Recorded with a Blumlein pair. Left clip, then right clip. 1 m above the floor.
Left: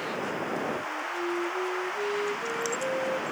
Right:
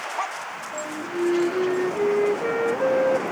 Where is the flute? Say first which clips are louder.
Right 3 dB; 30° right.